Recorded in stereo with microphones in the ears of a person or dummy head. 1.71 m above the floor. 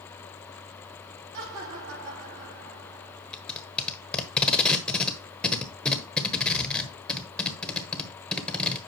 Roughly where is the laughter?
Right.